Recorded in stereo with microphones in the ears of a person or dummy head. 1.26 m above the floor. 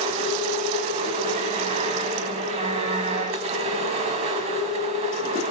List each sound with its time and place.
0.0 s a machine running: 40° right (ahead or behind), 1.7 m